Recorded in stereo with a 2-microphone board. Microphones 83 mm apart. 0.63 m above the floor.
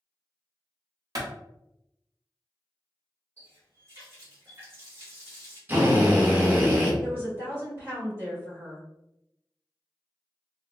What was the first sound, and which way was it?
A clap, 50° right (ahead or behind).